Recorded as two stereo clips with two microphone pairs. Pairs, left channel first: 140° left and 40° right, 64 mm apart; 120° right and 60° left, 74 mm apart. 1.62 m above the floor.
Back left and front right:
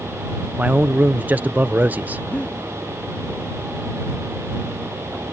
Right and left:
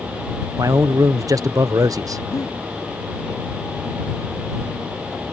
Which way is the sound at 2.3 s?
155° right.